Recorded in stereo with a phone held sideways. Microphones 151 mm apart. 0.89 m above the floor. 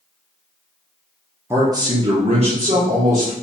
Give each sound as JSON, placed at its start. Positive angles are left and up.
{"t": 1.5, "sound": "a man speaking", "side_deg": -15, "distance_m": 0.7}